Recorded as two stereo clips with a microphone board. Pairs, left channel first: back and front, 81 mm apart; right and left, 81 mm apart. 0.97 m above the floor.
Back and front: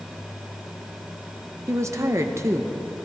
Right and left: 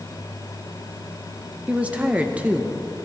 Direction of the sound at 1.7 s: 25° left.